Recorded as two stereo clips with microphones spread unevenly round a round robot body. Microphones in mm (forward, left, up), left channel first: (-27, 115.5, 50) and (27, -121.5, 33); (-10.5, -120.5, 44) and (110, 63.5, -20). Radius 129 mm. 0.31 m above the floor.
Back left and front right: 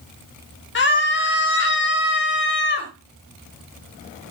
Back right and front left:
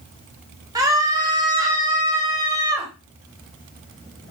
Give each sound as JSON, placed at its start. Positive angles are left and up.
{"t": 0.8, "sound": "a scream", "azimuth_deg": 100, "distance_m": 1.6}